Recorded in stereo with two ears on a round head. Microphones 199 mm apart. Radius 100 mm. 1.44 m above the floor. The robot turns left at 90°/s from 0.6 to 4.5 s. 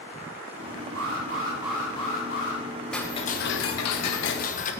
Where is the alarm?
105° right, 5 m; by 2.6 s 105° left, 5 m.